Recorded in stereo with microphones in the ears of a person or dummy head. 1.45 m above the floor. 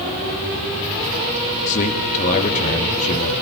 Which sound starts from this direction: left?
A man speaking, at 1.7 s.